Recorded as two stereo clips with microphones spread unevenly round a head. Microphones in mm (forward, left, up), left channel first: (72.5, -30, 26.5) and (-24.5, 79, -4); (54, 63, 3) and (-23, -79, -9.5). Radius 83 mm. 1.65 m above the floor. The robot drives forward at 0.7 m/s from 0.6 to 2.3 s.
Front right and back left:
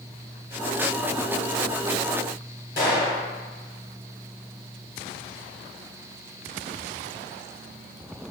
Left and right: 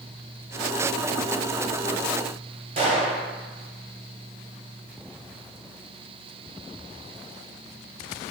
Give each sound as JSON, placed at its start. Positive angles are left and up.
{"t": 2.8, "sound": "a gunshot", "azimuth_deg": -85, "distance_m": 0.9}